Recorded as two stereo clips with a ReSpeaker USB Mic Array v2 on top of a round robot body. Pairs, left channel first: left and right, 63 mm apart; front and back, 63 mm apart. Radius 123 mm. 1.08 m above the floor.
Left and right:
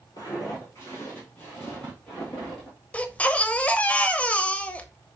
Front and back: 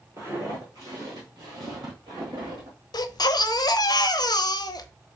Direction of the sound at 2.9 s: 20° left.